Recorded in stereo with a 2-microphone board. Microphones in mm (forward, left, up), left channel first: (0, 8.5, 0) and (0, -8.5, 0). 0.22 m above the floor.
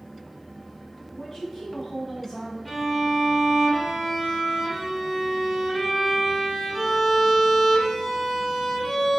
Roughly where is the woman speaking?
Left.